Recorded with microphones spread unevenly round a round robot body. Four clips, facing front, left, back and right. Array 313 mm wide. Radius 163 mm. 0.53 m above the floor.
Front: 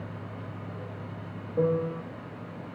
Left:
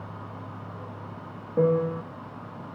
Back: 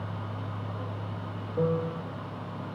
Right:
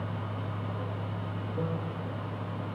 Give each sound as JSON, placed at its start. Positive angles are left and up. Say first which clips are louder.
{"t": 1.6, "sound": "a piano", "louder": "left 14 dB, front 2 dB", "azimuth_deg": 90, "distance_m": 0.5}